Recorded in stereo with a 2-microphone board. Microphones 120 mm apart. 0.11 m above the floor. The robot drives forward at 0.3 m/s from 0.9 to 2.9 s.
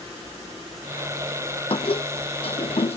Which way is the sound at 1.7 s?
50° left (ahead or behind).